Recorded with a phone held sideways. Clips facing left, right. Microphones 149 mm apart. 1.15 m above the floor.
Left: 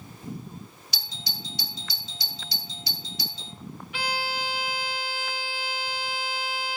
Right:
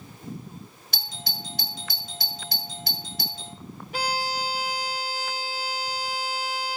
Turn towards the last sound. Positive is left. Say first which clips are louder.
# right 3 dB
turn(degrees=-35)  # may be behind; listen again after turning